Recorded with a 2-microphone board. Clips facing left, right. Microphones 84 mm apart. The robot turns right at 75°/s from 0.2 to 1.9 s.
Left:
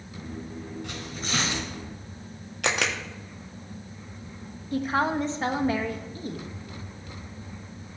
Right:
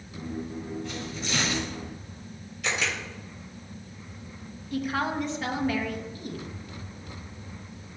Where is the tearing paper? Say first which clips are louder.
Right 1 dB; 105° left, 3 m; by 1.7 s 165° left, 3 m.